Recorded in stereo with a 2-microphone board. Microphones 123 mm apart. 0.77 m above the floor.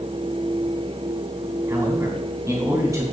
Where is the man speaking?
20° right (ahead or behind), 3 m.